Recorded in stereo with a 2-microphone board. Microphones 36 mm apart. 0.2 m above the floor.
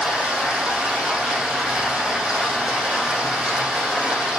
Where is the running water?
15° right (ahead or behind), 6 m.